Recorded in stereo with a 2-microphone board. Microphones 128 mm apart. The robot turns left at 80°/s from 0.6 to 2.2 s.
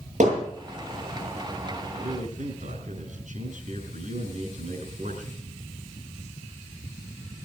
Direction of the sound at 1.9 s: 75° right (ahead or behind).